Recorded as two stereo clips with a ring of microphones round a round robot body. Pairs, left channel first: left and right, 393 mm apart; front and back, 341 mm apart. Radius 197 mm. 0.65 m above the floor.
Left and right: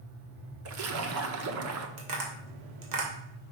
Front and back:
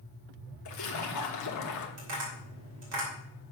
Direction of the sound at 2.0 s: 130° right.